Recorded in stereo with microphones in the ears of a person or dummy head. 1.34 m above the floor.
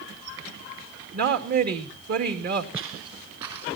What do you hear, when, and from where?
1.1 s a woman speaking: 55° right (ahead or behind), 2.5 m
2.7 s footsteps: 15° right (ahead or behind), 2 m; by 3.8 s 30° right (ahead or behind), 3.5 m